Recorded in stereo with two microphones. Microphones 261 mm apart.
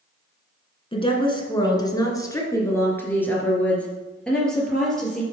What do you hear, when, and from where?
0.9 s a woman speaking: 20° left (ahead or behind), 1.5 m; by 5.2 s centre (ahead or behind), 3 m